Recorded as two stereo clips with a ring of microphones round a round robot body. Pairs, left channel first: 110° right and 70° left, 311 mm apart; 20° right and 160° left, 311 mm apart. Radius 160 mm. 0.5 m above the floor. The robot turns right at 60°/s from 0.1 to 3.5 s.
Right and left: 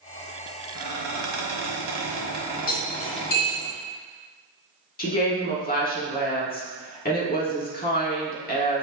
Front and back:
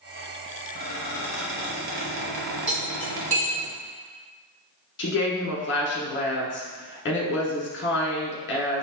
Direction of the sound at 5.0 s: 60° right.